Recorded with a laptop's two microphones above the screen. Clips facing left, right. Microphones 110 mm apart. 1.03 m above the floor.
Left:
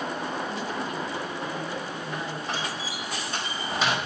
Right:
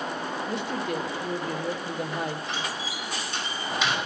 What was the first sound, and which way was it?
A woman speaking, 65° right (ahead or behind).